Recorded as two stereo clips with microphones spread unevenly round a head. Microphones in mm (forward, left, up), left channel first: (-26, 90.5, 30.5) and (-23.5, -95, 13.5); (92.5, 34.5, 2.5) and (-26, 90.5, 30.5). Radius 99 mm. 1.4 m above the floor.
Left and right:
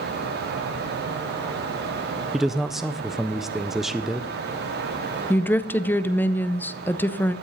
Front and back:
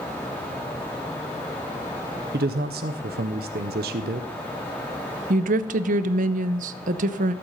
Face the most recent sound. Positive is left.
turn(degrees=170)